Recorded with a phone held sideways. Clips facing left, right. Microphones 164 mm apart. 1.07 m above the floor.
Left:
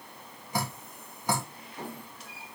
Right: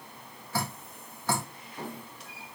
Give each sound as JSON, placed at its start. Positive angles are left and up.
{"t": 0.5, "sound": "dripping", "side_deg": 15, "distance_m": 1.7}